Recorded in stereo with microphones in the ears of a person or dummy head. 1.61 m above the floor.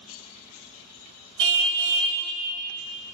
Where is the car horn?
65° right (ahead or behind), 3 m.